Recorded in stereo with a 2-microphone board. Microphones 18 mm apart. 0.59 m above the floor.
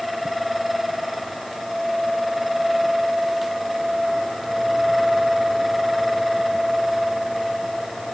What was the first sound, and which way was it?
Only background noise.